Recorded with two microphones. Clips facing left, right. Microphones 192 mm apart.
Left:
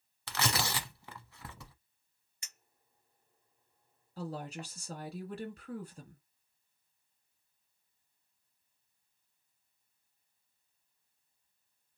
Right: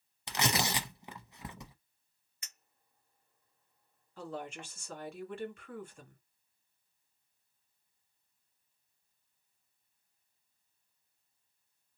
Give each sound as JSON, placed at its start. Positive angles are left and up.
{"t": 0.3, "sound": "tearing paper", "side_deg": -20, "distance_m": 0.8}
{"t": 2.4, "sound": "a clink", "side_deg": 30, "distance_m": 1.5}
{"t": 4.2, "sound": "a woman speaking", "side_deg": 35, "distance_m": 1.8}